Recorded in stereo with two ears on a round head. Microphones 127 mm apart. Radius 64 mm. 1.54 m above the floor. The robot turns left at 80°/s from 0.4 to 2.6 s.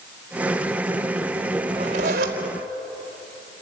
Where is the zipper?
30° right, 4.5 m; by 2.4 s 85° right, 4.5 m.